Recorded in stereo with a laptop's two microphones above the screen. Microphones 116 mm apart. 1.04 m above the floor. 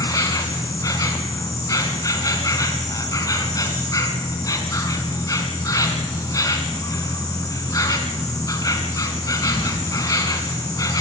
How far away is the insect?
About 1.7 m.